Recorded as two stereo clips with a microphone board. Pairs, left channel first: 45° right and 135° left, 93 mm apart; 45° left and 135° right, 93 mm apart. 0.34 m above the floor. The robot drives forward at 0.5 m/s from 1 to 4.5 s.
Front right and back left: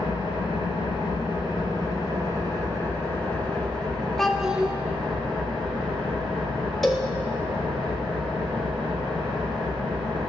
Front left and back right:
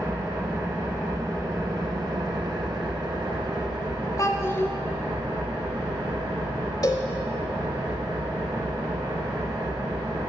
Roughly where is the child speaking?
Ahead left.